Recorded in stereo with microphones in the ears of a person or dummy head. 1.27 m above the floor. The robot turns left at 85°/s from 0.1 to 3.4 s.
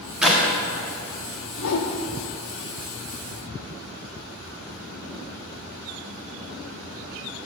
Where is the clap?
10° right (ahead or behind), 1.6 m; by 0.4 s 10° left (ahead or behind), 1.6 m.